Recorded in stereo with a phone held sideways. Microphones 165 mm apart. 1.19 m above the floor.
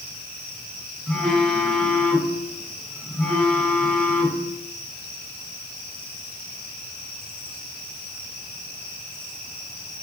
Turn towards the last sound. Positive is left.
turn(degrees=5)  # may be behind; listen again after turning